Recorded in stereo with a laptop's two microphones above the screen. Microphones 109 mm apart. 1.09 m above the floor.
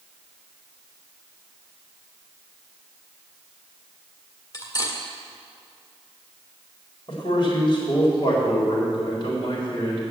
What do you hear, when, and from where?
4.5 s cutlery clinking: 35° left (ahead or behind), 1.6 m
7.1 s a man speaking: 45° left (ahead or behind), 4 m